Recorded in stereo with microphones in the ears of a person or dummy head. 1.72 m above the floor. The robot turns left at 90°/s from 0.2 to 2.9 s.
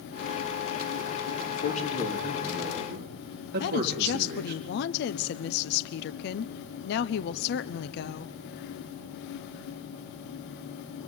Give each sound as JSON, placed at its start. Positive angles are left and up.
{"t": 1.5, "sound": "a man speaking", "azimuth_deg": 70, "distance_m": 4.0}
{"t": 3.6, "sound": "a woman speaking", "side_deg": 60, "distance_m": 0.9}